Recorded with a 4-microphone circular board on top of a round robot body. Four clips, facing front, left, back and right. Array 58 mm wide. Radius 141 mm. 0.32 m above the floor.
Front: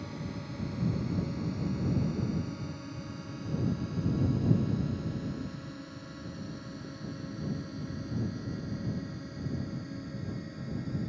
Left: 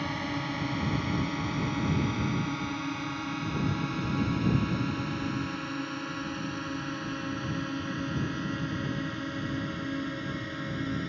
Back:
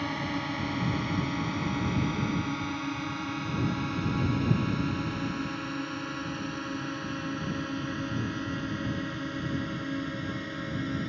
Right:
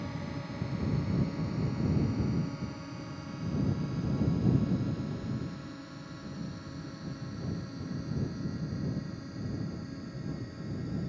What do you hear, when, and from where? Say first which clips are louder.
0.0 s a drone: left 7 dB, back 9 dB; 140° left; by 11.1 s 135° left